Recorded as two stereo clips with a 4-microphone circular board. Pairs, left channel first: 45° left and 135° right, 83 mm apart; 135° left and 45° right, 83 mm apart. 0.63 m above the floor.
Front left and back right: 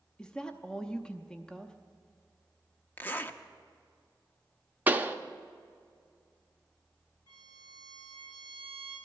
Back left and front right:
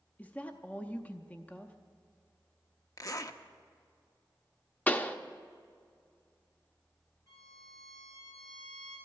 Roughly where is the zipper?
Left.